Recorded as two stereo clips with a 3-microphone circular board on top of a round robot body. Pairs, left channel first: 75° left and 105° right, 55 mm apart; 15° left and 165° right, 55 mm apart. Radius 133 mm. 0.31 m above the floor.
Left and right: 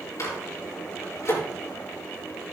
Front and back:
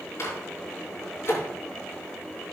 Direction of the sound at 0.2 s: 55° left.